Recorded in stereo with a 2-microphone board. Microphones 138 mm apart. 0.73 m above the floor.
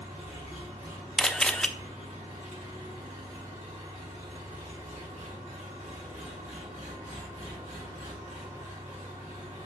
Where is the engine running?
60° right (ahead or behind), 3.5 m.